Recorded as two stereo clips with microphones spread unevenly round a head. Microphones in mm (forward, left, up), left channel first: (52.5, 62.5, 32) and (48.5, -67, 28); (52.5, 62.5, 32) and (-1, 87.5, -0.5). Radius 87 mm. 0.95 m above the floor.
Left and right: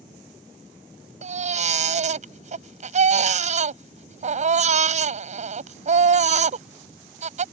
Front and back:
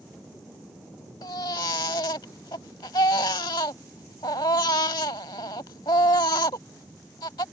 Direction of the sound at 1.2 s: 65° right.